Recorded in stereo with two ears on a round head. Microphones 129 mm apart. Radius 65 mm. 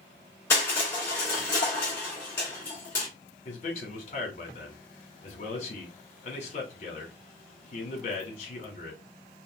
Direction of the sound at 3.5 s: 50° left (ahead or behind).